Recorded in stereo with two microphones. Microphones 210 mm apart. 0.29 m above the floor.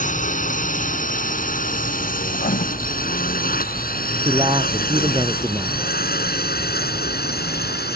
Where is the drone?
40° left (ahead or behind); by 8.0 s 50° left (ahead or behind).